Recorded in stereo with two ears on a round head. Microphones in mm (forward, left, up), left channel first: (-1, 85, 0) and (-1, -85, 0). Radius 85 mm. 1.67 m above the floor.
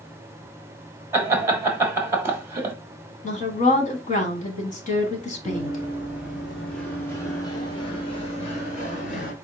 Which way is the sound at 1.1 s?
15° right (ahead or behind).